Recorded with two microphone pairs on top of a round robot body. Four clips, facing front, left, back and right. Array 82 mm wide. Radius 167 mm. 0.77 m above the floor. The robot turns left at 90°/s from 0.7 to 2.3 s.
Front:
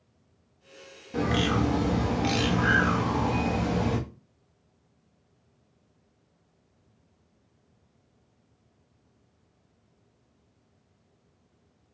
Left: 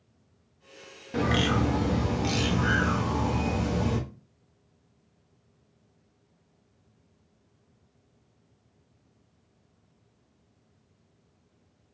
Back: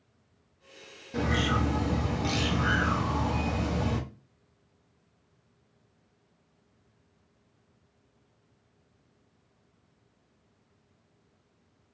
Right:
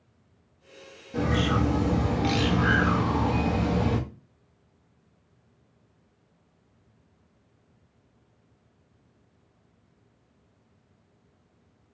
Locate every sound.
1.1 s a bird: 90° left, 1.2 m; by 4.0 s 15° right, 1.2 m